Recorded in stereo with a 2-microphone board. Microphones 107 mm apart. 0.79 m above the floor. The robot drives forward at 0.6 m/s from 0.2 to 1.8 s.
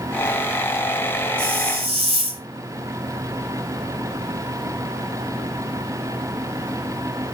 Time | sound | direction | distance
1.4 | a hiss | 65° right (ahead or behind) | 1.6 m